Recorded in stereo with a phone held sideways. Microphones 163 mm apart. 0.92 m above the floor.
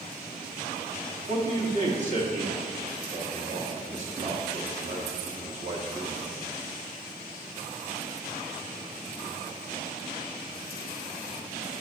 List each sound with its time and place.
1.3 s a man speaking: 50° right (ahead or behind), 1.7 m